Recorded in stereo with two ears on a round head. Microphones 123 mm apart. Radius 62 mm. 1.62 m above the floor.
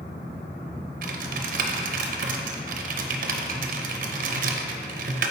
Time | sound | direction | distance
1.0 | typing on a keyboard | 65° right (ahead or behind) | 0.5 m